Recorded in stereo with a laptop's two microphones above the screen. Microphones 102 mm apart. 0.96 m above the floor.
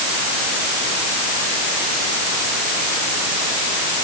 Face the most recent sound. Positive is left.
No sound to turn to.